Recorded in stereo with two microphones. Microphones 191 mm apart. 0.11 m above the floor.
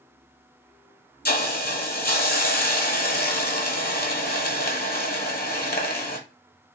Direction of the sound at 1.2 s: 50° left (ahead or behind).